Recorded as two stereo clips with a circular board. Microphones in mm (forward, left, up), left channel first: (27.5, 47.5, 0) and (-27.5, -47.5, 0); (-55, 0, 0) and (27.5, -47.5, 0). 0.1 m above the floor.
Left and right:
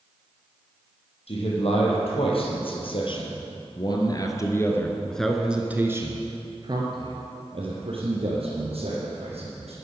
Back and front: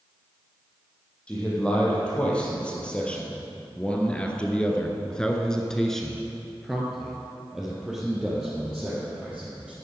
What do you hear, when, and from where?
1.3 s a man speaking: 70° left, 3.5 m; by 9.7 s 115° right, 3.5 m